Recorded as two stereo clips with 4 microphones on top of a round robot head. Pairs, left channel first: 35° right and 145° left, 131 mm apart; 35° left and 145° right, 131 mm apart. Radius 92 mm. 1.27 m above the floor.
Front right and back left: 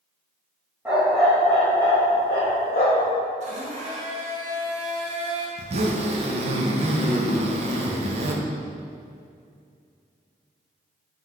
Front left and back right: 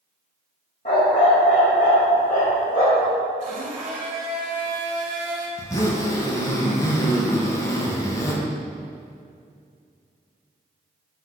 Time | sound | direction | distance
0.8 | a dog barking | 70° left | 1.4 m
3.4 | a blender | straight behind | 1.2 m
5.6 | a zipper | 100° left | 0.8 m